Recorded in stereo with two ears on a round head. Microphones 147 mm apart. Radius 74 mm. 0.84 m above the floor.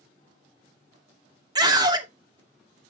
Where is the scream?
25° right (ahead or behind), 2.0 m.